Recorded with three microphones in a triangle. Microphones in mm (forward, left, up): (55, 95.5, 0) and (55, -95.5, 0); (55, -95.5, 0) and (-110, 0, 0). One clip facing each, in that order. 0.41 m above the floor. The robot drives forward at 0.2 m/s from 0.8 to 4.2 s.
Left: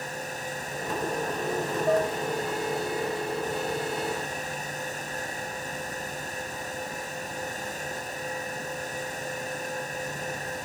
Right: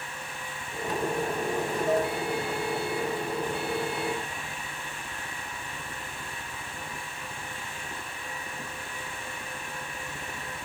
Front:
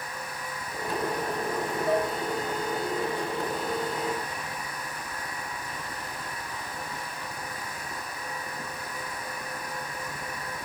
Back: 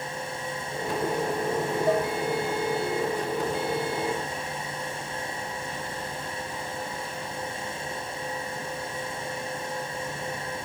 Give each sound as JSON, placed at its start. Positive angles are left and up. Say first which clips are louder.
{"t": 1.9, "sound": "dishes clattering", "louder": "left 2 dB, back 1 dB", "azimuth_deg": 115, "distance_m": 1.8}